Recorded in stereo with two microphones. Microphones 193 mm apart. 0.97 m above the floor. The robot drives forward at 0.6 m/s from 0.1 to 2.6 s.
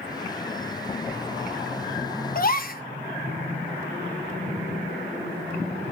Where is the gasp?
50° left (ahead or behind), 1.2 m.